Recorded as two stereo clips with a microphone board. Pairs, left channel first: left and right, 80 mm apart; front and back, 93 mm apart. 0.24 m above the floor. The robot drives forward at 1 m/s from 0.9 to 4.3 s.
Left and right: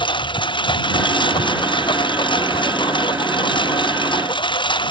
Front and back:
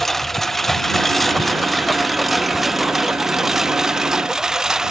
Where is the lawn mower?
85° left; by 4.9 s 95° left.